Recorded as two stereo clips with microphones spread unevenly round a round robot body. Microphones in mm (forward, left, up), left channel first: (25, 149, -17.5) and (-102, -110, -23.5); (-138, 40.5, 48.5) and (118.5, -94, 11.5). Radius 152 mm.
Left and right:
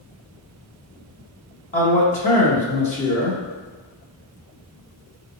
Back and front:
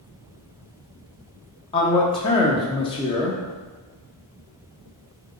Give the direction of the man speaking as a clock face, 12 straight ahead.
9 o'clock.